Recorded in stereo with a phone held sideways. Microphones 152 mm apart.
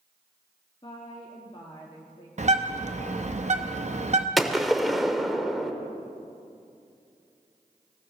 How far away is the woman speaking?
About 1.4 m.